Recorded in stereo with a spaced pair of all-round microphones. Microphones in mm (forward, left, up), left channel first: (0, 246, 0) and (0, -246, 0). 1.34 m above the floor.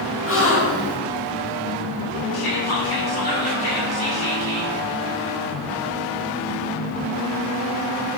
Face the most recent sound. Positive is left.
turn(degrees=45)  # may be behind; listen again after turning